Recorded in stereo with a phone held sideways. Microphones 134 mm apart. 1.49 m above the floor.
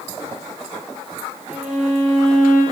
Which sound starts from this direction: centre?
A violin, at 1.5 s.